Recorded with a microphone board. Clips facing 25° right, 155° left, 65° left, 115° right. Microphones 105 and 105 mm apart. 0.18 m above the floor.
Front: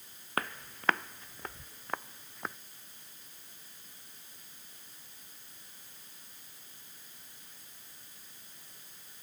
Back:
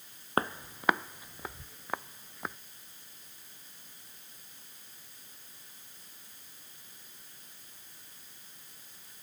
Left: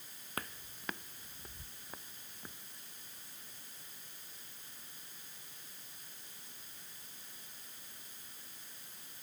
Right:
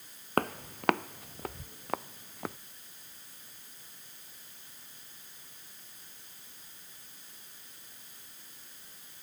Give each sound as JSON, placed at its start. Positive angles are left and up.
{"t": 0.4, "sound": "footsteps", "azimuth_deg": -140}